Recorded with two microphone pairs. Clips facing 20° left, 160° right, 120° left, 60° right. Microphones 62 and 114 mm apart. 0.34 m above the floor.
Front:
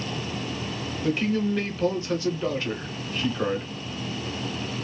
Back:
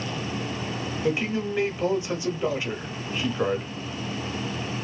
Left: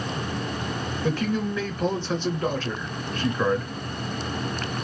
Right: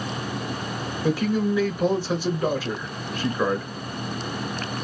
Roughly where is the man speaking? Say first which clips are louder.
Front 2 dB, right 4 dB; behind right.